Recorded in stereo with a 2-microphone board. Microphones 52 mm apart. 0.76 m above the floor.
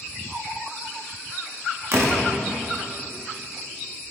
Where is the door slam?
60° right (ahead or behind), 0.9 m.